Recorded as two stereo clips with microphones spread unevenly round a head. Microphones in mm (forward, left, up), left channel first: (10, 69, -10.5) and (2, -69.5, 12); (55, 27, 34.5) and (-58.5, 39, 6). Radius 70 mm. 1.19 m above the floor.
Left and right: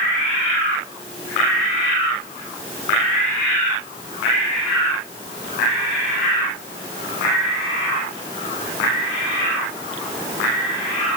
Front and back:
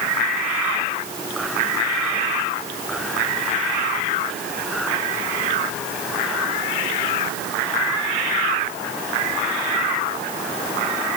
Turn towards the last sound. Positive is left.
No sound to turn to.